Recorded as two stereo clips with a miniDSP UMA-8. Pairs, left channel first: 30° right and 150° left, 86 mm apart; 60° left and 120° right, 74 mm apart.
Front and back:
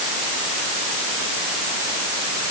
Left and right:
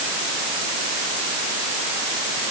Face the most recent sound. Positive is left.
No sound to turn to.